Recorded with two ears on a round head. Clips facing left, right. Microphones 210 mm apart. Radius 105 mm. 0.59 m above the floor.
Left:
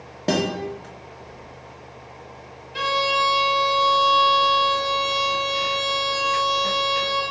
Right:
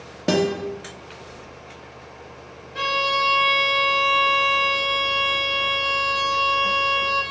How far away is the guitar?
About 0.7 m.